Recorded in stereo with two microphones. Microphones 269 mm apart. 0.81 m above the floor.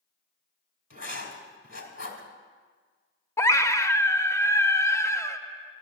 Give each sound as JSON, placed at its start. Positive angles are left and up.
{"t": 0.9, "sound": "writing", "side_deg": 50, "distance_m": 1.8}
{"t": 3.4, "sound": "a scream", "side_deg": 10, "distance_m": 0.6}